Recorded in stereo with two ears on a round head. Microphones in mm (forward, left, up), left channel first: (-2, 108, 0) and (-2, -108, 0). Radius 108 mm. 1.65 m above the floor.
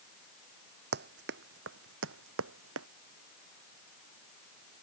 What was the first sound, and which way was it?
Running footsteps, 45° right (ahead or behind).